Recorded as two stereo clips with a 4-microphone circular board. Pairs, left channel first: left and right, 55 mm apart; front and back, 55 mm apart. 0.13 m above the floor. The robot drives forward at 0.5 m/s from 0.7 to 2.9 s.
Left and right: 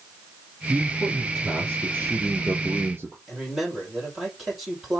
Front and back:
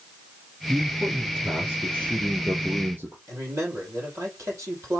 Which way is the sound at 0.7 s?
125° right.